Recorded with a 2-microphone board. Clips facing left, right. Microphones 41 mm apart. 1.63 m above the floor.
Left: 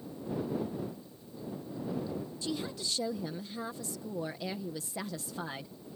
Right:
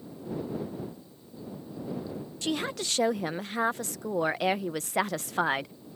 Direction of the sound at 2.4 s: 60° right (ahead or behind).